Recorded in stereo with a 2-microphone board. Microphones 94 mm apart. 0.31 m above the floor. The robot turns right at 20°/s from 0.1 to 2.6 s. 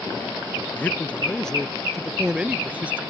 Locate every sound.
0.7 s a man speaking: 160° left; by 3.0 s 165° right